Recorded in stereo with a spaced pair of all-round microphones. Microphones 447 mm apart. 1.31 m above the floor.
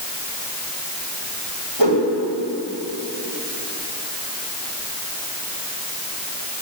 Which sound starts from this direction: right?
A whoosh, at 1.8 s.